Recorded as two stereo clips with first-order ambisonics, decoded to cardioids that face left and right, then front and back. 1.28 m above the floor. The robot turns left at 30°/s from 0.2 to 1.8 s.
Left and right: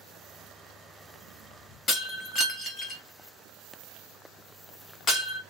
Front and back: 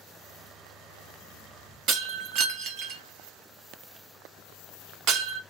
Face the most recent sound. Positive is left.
turn(degrees=150)